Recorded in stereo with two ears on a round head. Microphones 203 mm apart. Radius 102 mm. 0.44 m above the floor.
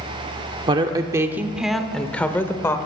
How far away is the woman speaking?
About 0.8 m.